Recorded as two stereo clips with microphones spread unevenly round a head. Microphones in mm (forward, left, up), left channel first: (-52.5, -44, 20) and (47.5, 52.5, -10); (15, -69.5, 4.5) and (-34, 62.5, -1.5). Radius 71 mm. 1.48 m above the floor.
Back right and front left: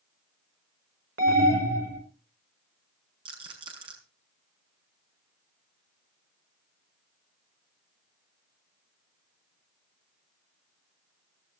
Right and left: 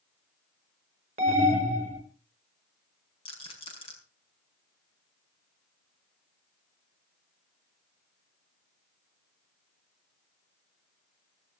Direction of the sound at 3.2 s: 15° right.